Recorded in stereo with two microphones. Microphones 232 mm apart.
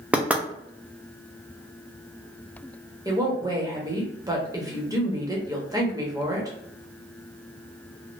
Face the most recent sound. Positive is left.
turn(degrees=-15)  # may be behind; listen again after turning